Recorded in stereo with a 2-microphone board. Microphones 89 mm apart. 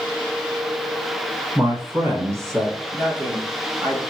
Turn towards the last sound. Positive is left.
turn(degrees=-25)  # may be behind; listen again after turning